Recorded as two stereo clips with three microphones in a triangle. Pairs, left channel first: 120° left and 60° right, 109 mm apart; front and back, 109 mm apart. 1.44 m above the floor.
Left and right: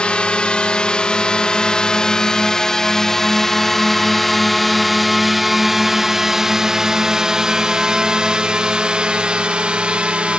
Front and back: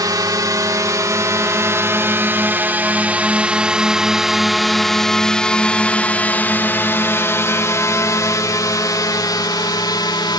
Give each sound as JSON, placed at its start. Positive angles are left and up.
{"t": 0.0, "sound": "a drone", "azimuth_deg": -165}